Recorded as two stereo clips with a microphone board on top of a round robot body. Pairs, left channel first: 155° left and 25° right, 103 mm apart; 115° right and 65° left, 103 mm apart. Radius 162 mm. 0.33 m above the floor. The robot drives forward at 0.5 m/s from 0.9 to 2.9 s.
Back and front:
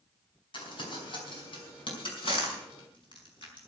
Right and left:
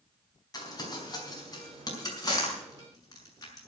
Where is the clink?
I don't hear a clink.